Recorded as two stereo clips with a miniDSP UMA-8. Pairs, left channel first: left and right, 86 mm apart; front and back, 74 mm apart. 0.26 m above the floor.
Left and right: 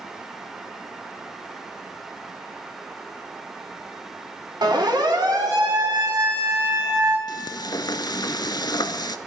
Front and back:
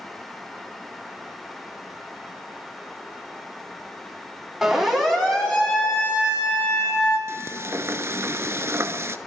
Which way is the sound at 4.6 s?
90° right.